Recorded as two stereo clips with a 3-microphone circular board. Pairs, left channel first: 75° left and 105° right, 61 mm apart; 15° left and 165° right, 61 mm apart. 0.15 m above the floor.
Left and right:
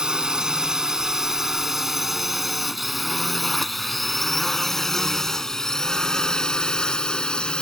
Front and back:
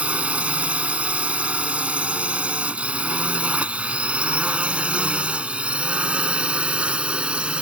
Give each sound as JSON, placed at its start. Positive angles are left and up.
{"t": 0.0, "sound": "a drone", "azimuth_deg": -155}